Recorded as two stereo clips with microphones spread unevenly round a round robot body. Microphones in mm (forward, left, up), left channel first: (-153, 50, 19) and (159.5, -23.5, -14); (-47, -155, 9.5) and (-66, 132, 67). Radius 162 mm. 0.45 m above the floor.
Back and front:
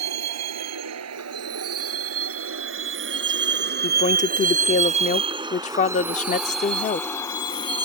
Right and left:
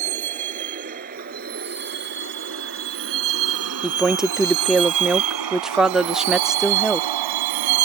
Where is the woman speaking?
150° right.